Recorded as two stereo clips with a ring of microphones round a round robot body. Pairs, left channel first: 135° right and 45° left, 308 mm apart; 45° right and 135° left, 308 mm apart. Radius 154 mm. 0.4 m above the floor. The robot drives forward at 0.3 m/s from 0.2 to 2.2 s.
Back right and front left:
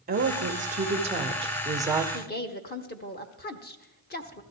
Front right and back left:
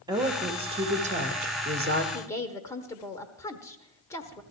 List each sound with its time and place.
0.1 s a woman speaking: 70° left, 1.2 m; by 2.0 s 120° left, 1.3 m
2.1 s a woman speaking: 115° right, 1.0 m